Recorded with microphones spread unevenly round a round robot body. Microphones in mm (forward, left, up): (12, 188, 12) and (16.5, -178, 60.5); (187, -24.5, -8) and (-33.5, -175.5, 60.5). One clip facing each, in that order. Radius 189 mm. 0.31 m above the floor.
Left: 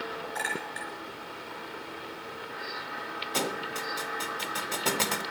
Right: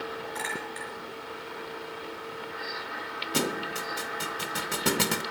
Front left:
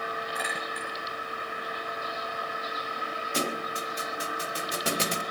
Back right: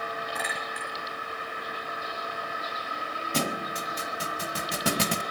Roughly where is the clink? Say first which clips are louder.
Right 1 dB, front left 1 dB; behind.